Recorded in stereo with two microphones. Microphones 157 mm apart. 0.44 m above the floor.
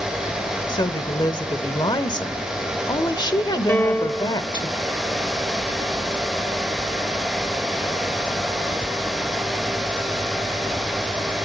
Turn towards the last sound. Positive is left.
turn(degrees=10)  # may be behind; listen again after turning